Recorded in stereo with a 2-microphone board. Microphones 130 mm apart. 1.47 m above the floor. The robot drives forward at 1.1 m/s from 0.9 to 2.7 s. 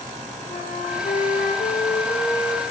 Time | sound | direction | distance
0.5 | a flute | 75° left (ahead or behind) | 2 m